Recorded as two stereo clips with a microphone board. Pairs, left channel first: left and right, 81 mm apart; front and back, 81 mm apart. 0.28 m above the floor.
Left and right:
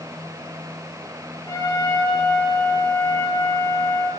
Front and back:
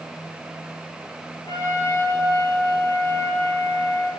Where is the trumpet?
45° left, 7 m.